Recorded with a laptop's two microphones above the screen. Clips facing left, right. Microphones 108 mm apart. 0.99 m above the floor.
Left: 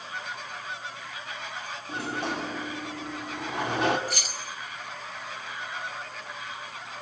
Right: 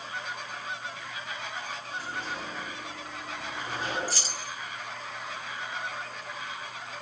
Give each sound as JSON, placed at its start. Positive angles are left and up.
{"t": 1.9, "sound": "a sliding door", "side_deg": 70, "distance_m": 2.5}
{"t": 4.1, "sound": "keys jangling", "side_deg": -30, "distance_m": 1.9}